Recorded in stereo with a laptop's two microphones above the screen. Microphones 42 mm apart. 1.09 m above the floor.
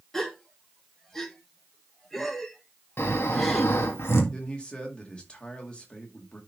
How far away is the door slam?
No door slam in this recording.